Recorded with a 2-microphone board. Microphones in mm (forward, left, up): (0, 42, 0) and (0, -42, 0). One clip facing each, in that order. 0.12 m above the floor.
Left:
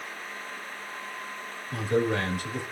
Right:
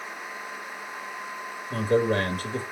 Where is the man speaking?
45° right (ahead or behind), 2.5 m.